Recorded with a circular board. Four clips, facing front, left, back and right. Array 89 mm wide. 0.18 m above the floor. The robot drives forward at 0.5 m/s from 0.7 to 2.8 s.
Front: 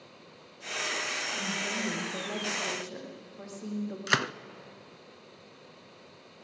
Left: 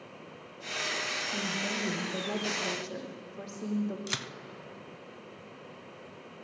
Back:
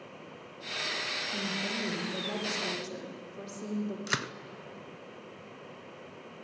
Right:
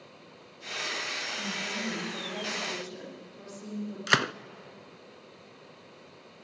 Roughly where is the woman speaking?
Behind left.